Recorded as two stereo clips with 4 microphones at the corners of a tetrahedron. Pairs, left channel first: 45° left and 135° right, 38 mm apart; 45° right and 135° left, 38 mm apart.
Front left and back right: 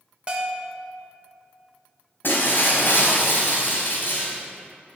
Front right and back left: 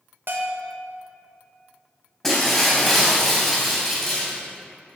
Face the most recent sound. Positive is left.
turn(degrees=30)